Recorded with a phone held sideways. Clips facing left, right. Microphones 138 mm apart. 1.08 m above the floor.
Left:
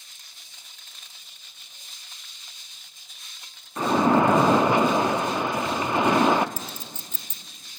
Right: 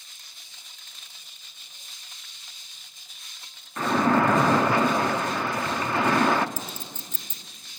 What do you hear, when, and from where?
3.8 s a splash: 20° left (ahead or behind), 0.6 m
6.6 s a clink: 50° right (ahead or behind), 0.6 m